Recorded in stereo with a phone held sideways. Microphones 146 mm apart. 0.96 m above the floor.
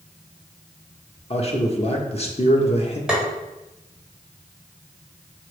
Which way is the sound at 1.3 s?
45° left (ahead or behind).